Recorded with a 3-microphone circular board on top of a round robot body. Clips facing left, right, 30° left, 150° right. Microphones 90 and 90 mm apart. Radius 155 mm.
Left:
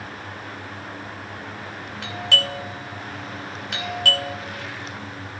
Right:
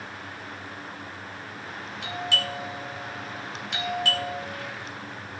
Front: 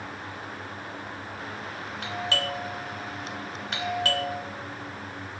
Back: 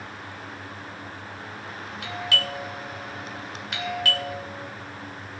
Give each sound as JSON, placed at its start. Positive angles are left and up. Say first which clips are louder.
{"t": 2.0, "sound": "a doorbell", "louder": "left 4 dB, even", "azimuth_deg": 80, "distance_m": 3.0}